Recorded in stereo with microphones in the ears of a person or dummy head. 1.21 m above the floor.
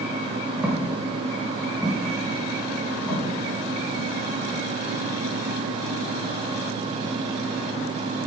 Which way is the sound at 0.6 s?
5° right (ahead or behind).